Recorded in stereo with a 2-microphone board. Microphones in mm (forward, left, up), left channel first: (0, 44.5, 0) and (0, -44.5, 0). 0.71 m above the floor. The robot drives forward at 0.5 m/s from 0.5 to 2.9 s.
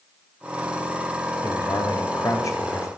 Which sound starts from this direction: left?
A man speaking, at 1.4 s.